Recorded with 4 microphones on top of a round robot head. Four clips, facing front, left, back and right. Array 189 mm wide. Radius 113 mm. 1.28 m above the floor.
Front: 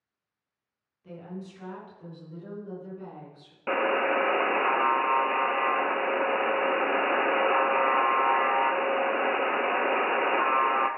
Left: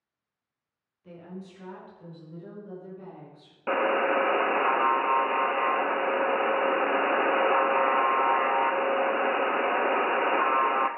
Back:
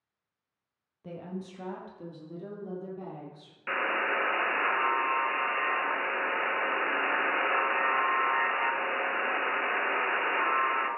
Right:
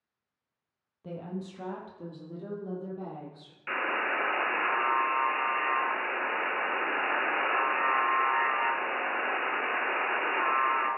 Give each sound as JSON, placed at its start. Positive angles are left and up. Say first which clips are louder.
{"t": 1.0, "sound": "a woman speaking", "louder": "right 4 dB, back 1 dB", "azimuth_deg": -130, "distance_m": 1.6}
{"t": 3.7, "sound": "a buzzer", "louder": "left 7 dB, front 5 dB", "azimuth_deg": 55, "distance_m": 0.8}